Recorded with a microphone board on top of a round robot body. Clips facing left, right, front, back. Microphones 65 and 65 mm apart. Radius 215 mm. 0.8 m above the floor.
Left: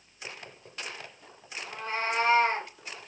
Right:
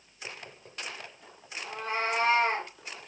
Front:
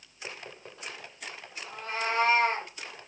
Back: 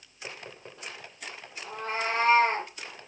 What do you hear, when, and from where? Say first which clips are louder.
1.6 s a cat meowing: right 1 dB, back 1 dB; 135° right, 0.6 m